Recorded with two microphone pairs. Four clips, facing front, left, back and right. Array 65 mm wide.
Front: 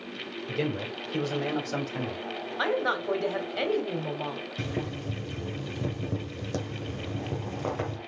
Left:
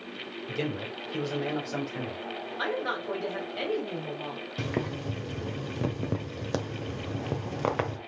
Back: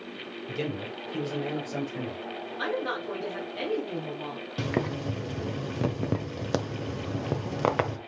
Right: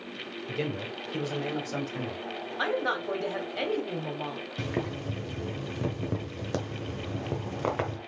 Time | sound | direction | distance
0.5 | a man speaking | 15° left | 0.8 m
2.6 | a woman speaking | 20° right | 2.0 m
4.6 | boiling | 160° left | 1.0 m